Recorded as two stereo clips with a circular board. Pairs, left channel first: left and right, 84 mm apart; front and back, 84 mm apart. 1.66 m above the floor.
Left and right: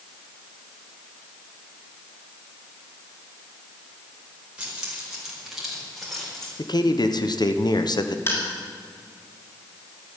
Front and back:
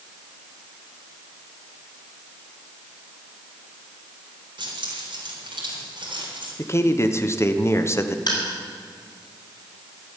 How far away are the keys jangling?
About 4 m.